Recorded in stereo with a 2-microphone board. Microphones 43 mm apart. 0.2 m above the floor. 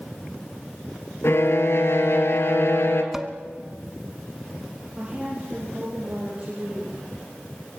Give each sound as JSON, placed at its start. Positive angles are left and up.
{"t": 1.2, "sound": "a violin", "side_deg": 65, "distance_m": 2.5}
{"t": 3.1, "sound": "dishes clattering", "side_deg": -10, "distance_m": 1.3}
{"t": 5.0, "sound": "a woman speaking", "side_deg": -25, "distance_m": 5.0}